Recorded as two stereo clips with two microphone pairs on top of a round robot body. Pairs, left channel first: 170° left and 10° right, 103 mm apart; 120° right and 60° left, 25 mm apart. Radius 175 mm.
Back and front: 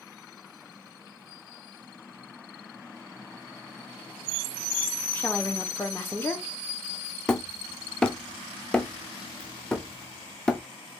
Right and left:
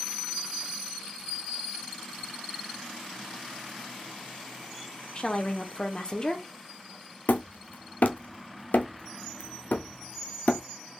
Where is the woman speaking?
135° right, 1.1 m.